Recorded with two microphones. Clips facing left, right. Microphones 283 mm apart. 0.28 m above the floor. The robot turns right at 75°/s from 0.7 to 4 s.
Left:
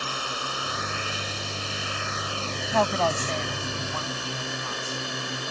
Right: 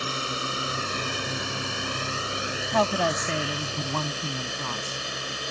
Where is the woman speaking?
Straight behind; by 5.0 s 85° right.